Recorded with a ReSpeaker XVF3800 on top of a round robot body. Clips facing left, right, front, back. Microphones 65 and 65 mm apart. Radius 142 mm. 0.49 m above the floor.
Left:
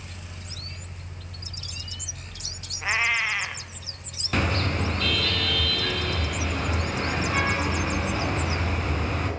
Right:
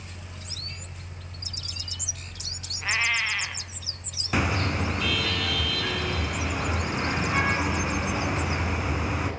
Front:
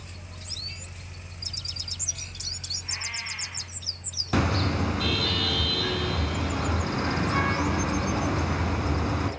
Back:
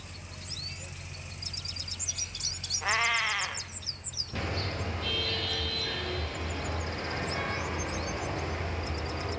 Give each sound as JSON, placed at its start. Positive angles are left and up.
{"t": 2.8, "sound": "a cat meowing", "azimuth_deg": 170, "distance_m": 1.3}
{"t": 4.3, "sound": "a car horn", "azimuth_deg": -10, "distance_m": 4.0}